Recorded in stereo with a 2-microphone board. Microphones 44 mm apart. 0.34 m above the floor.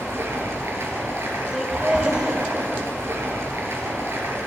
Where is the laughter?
15° right (ahead or behind), 1.9 m.